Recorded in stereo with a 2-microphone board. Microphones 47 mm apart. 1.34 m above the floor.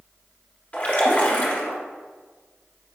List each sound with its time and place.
0.7 s a splash: 30° left (ahead or behind), 0.8 m